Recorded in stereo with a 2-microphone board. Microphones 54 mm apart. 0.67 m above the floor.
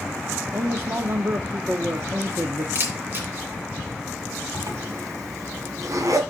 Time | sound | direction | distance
0.5 | a man speaking | 50° right (ahead or behind) | 0.8 m
2.8 | a camera shutter | 40° right (ahead or behind) | 2.5 m
4.5 | a zipper | 85° right | 1.9 m